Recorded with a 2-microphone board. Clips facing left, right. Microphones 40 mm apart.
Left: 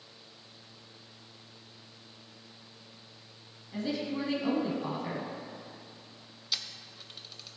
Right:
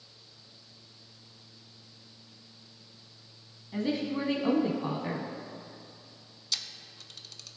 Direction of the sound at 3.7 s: 15° right (ahead or behind).